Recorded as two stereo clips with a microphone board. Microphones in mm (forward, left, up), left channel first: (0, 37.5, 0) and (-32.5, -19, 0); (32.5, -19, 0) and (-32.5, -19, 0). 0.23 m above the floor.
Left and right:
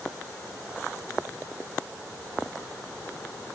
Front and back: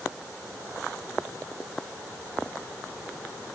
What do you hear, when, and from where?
Only background noise.